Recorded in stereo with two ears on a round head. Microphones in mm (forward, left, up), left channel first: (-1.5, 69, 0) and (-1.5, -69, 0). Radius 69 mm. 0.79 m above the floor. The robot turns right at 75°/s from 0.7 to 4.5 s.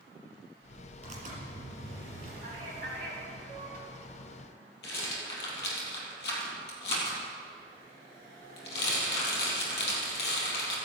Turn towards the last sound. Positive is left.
turn(degrees=80)